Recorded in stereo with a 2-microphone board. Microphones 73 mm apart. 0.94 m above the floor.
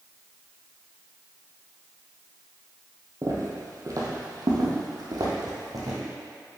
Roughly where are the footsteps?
Right.